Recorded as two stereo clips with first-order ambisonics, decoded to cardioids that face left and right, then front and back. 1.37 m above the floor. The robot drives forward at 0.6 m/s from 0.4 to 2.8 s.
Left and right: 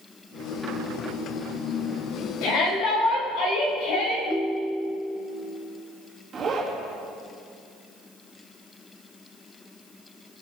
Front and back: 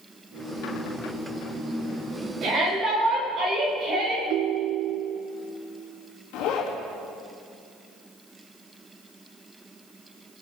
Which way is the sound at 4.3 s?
Straight behind.